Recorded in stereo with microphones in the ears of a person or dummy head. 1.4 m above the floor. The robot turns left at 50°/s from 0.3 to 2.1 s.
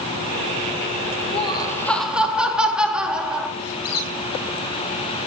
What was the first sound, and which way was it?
Laughter, 35° left.